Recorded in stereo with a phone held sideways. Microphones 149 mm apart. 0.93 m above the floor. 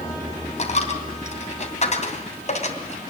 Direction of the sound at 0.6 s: 50° left (ahead or behind).